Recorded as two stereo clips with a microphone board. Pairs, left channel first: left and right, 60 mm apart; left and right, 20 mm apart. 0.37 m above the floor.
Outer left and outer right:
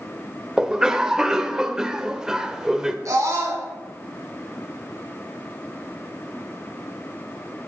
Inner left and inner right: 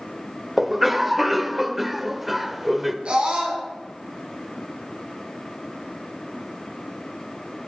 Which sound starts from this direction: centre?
A cough, at 0.6 s.